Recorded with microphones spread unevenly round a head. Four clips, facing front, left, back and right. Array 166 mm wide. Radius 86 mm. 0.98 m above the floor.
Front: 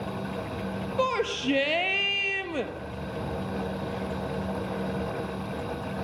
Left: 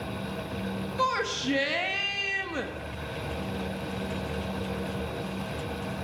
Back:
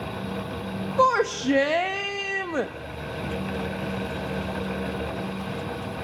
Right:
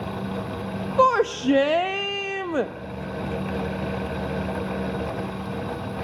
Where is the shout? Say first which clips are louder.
Right 10 dB, back 7 dB; 110° right, 1.4 m.